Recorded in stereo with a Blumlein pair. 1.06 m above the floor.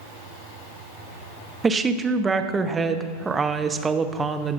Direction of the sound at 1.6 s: 15° right.